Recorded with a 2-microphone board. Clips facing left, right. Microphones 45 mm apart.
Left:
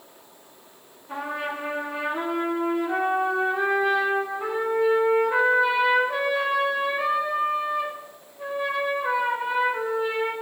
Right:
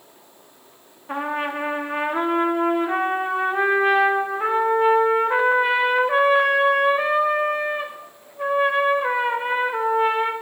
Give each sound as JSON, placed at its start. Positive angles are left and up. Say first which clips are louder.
{"t": 1.1, "sound": "a trumpet", "louder": "right 5 dB", "side_deg": -45, "distance_m": 0.6}